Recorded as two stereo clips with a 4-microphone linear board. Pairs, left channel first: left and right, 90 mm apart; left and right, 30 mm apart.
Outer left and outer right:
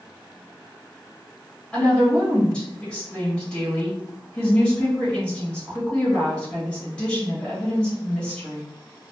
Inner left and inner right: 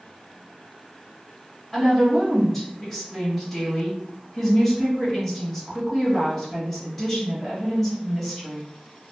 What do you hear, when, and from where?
1.7 s a woman speaking: 10° left (ahead or behind), 1.5 m